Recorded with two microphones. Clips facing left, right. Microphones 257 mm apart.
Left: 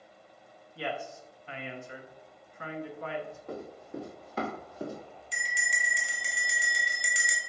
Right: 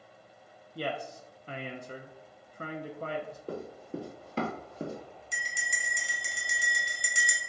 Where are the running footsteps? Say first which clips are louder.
Right 4 dB; 35° right (ahead or behind), 1.4 m; by 5.0 s 20° right (ahead or behind), 1.0 m.